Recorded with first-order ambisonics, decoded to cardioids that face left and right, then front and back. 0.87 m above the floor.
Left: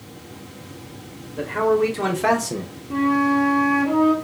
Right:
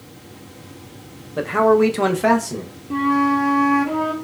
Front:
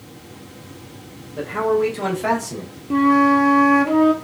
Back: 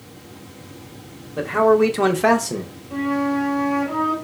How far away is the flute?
About 0.8 m.